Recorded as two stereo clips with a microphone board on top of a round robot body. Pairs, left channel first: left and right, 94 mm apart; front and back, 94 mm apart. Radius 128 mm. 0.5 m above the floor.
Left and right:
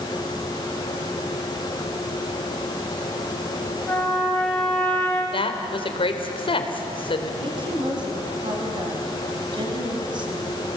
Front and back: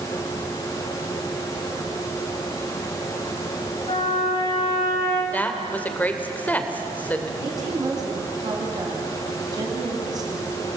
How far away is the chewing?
No chewing in this recording.